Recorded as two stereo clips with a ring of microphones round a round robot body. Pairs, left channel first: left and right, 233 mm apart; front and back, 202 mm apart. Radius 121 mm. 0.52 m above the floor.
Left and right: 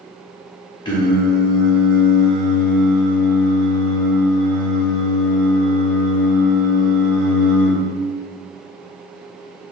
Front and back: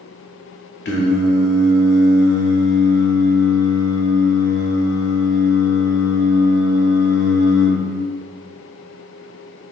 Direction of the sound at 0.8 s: 20° left.